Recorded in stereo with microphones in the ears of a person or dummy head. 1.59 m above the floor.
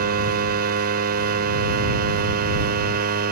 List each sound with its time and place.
0.0 s a machine running: 60° right (ahead or behind)